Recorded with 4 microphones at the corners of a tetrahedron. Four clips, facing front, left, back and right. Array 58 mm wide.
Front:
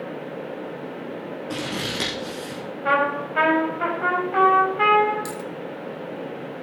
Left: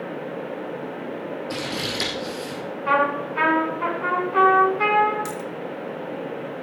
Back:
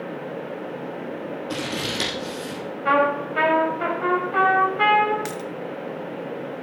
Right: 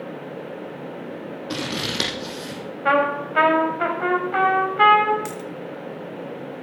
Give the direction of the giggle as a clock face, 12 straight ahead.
I don't hear a giggle.